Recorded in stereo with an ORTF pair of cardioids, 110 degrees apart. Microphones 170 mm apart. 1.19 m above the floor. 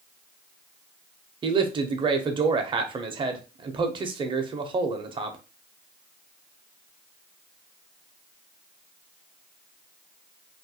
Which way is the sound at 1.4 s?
30° right.